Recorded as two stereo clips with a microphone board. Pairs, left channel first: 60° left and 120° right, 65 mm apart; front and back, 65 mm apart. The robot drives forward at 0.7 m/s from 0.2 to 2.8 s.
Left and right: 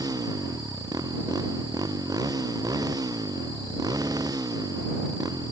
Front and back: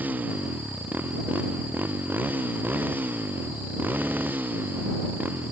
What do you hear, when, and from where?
0.0 s a motorcycle: 115° right; by 5.5 s 120° right